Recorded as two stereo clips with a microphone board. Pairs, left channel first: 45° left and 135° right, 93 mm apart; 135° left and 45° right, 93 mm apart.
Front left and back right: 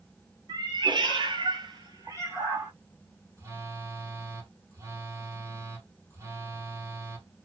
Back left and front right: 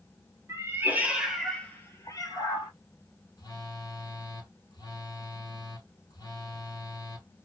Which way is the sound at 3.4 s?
170° left.